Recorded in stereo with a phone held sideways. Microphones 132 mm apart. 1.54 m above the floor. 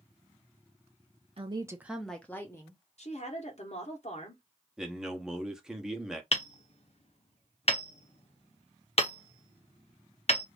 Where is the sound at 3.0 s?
55° left (ahead or behind), 1.2 m.